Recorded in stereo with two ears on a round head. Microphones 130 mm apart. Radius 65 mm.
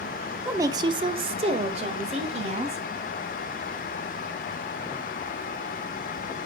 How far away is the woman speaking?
About 0.8 m.